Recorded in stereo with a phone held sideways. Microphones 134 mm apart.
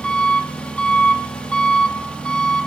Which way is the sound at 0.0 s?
10° left (ahead or behind).